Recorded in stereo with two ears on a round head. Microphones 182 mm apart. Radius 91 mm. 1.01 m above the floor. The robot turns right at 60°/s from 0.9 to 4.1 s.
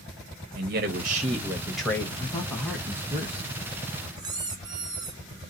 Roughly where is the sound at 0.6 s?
Ahead right.